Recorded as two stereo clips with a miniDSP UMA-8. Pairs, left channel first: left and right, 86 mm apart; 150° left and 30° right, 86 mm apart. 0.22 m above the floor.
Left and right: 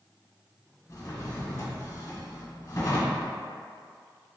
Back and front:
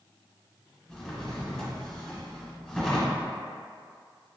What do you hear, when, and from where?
0.9 s a drawer: 70° left, 0.9 m